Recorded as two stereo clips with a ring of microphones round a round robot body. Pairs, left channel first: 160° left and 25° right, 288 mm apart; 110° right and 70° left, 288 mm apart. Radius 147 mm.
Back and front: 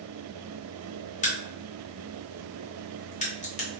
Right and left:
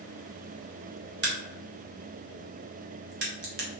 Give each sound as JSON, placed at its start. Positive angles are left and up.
{"t": 1.2, "sound": "a crack", "azimuth_deg": 100, "distance_m": 1.4}